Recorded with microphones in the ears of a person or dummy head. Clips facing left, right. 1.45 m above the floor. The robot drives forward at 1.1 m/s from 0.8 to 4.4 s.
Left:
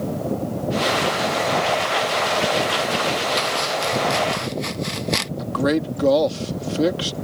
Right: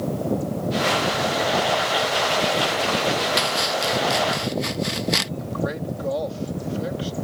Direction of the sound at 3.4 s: 10° right (ahead or behind).